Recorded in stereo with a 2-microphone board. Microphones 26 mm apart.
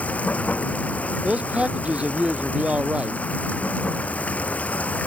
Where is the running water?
70° left (ahead or behind).